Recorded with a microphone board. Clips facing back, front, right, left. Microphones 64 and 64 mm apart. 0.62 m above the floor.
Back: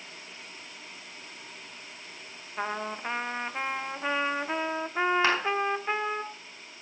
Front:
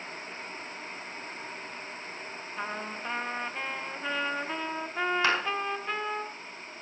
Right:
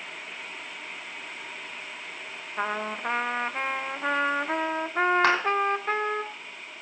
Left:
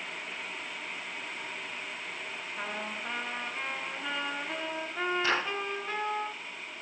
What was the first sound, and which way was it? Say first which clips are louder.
A trumpet: back 4 dB, right 9 dB; 120° right.